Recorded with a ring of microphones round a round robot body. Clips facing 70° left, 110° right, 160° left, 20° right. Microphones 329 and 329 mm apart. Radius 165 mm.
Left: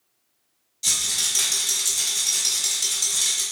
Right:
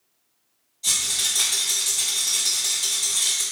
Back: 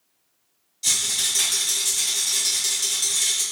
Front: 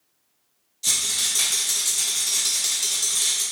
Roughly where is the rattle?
Left.